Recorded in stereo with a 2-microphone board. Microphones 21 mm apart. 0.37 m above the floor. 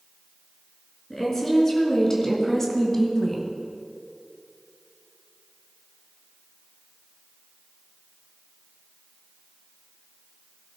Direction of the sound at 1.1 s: 25° left (ahead or behind).